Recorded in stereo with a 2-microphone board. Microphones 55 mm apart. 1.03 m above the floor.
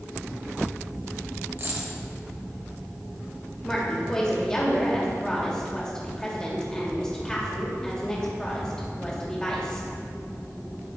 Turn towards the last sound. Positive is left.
turn(degrees=15)  # may be behind; listen again after turning